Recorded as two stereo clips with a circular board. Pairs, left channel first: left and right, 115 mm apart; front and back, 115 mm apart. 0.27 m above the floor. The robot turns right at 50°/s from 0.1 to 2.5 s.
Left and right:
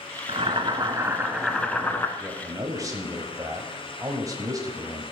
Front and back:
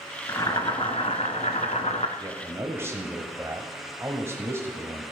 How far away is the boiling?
About 1.1 m.